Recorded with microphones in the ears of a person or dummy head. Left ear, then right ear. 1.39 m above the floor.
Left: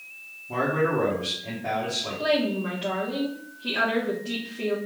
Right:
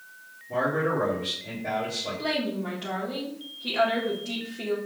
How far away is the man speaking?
About 1.7 m.